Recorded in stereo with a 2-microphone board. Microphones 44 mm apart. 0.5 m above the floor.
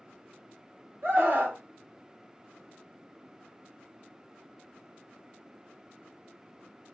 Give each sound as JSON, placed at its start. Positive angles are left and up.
{"t": 1.0, "sound": "a scream", "side_deg": -45, "distance_m": 1.8}